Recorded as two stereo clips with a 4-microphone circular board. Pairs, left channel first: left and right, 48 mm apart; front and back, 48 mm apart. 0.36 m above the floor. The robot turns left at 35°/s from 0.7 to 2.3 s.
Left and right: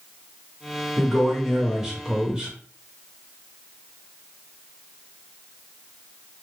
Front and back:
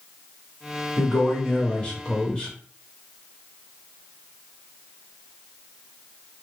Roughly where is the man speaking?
Ahead.